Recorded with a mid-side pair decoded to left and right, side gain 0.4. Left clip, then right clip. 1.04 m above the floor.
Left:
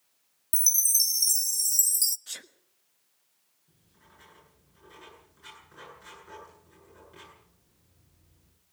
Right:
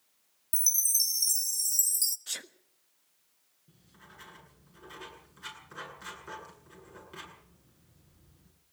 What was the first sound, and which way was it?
A chime, 30° left.